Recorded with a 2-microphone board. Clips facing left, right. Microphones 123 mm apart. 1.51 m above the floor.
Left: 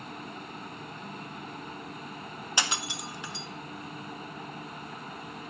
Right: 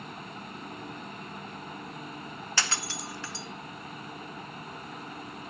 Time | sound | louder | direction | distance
2.6 | breaking glass | left 1 dB | 15° left (ahead or behind) | 0.6 m